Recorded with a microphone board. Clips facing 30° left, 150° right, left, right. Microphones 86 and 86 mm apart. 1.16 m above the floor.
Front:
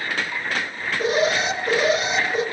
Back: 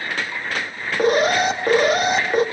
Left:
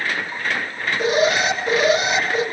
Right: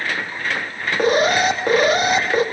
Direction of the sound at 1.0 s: 125° right.